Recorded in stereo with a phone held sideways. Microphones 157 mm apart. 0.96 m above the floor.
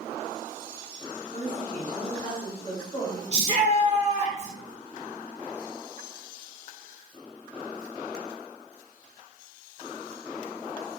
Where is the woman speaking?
30° left (ahead or behind), 1.0 m.